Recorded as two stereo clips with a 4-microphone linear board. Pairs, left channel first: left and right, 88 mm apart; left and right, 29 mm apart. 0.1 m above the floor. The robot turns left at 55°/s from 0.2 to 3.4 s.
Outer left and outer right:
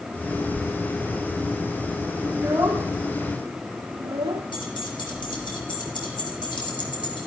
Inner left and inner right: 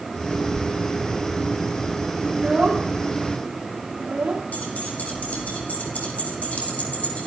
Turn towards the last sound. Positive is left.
turn(degrees=65)  # may be behind; listen again after turning